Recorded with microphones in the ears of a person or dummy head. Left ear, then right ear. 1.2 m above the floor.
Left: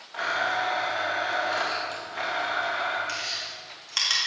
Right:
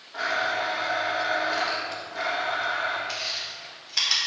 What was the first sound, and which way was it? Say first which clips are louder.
A blender: even; 25° left (ahead or behind).